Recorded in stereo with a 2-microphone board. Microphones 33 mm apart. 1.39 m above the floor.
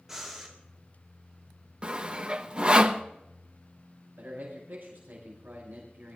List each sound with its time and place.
0.1 s breathing: 10° right (ahead or behind), 3 m
1.8 s sawing: 30° right (ahead or behind), 0.8 m
4.2 s a man speaking: 80° right, 6 m